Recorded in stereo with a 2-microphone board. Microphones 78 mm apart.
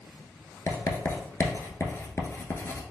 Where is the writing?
35° left (ahead or behind), 0.8 m.